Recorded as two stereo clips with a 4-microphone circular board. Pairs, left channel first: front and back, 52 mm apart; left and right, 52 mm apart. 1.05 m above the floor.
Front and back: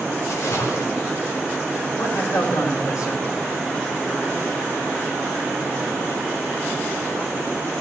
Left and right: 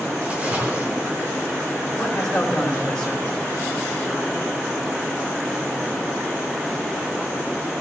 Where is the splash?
20° right, 4 m.